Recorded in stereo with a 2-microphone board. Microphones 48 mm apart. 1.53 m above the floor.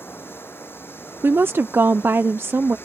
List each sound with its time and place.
0.0 s running water: 50° left (ahead or behind)
1.2 s a woman speaking: 50° right (ahead or behind)